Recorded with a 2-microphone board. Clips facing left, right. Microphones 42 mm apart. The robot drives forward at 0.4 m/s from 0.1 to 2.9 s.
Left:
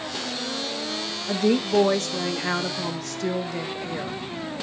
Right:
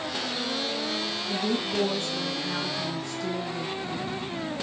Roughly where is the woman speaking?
Left.